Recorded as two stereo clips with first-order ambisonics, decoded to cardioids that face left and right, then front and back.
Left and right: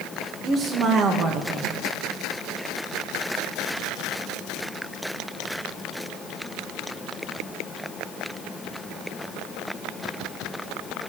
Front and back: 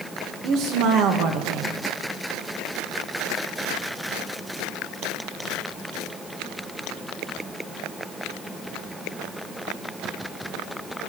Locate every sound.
0.4 s a woman speaking: 150° right, 1.4 m